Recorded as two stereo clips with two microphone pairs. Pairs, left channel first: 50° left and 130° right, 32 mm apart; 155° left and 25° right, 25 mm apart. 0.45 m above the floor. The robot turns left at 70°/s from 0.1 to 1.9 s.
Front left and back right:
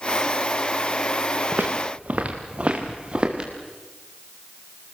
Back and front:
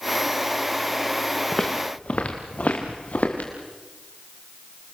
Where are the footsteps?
130° right, 2.5 m; by 3.5 s 175° left, 4.5 m.